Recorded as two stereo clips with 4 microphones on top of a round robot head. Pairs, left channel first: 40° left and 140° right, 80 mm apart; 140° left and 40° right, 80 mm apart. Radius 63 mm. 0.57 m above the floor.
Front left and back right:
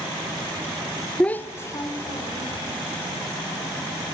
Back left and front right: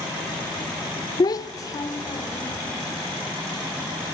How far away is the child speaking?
About 0.6 m.